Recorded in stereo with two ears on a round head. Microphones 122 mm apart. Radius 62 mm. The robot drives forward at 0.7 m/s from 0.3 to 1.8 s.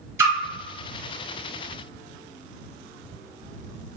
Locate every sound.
0.2 s a splash: 15° right (ahead or behind), 1.7 m; by 0.3 s 20° right (ahead or behind), 1.7 m